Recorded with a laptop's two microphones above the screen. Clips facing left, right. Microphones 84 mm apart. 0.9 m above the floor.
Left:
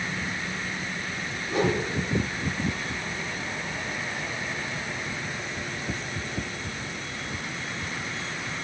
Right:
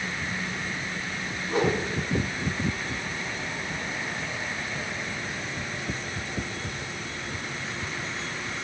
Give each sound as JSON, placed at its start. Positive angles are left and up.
{"t": 1.5, "sound": "a whoosh", "side_deg": -50, "distance_m": 9.5}